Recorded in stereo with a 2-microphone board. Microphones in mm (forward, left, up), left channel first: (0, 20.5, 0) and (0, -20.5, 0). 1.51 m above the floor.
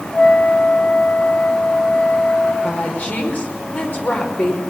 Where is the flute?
30° left (ahead or behind), 3 m.